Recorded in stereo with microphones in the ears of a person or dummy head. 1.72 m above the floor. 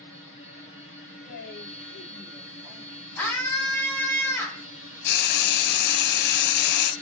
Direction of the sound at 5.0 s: 65° left (ahead or behind).